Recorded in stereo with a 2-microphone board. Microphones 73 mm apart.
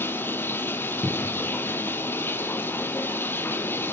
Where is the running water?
30° left (ahead or behind), 1.6 m.